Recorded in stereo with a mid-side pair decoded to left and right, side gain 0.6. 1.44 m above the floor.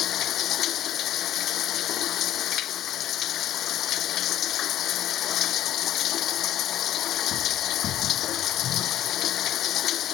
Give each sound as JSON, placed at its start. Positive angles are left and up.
{"t": 0.0, "sound": "running water", "azimuth_deg": 55}